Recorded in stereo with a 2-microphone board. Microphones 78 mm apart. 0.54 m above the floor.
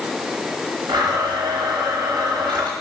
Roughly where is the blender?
Right.